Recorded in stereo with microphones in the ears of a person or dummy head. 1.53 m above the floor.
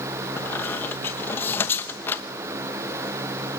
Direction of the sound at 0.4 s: 10° left (ahead or behind).